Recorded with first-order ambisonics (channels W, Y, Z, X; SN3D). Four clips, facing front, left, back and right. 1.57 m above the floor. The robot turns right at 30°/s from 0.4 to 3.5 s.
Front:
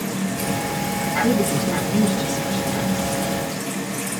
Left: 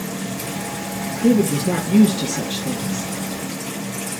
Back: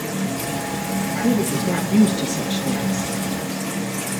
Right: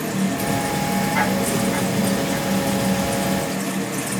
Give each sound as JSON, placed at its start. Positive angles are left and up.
{"t": 1.2, "sound": "a woman speaking", "azimuth_deg": 90, "distance_m": 3.0}